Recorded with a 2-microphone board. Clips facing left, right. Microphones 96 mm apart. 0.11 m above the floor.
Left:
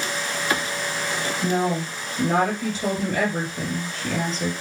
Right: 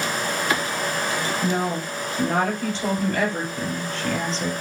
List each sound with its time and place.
1.4 s a woman speaking: centre (ahead or behind), 3.5 m